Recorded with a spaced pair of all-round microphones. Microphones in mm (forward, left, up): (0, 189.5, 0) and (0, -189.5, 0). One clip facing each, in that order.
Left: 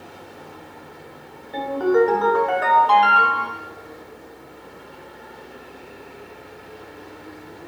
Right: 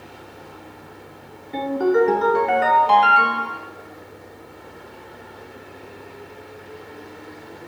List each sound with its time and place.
1.5 s a ringtone: 35° right (ahead or behind), 1.1 m